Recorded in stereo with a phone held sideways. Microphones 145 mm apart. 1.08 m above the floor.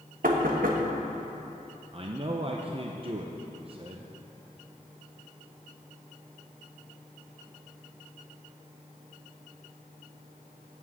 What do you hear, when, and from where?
0.2 s knocking: 75° right (ahead or behind), 1.1 m
1.9 s a man speaking: 40° right (ahead or behind), 0.6 m